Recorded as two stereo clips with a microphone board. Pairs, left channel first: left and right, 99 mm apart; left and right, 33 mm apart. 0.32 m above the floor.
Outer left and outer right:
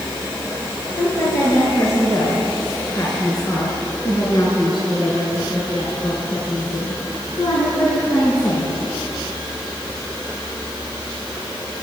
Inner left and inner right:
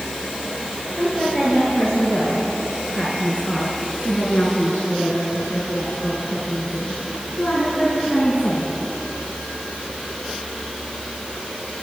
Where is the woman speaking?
25° left (ahead or behind), 7.5 m; by 8.8 s 60° left (ahead or behind), 5.5 m.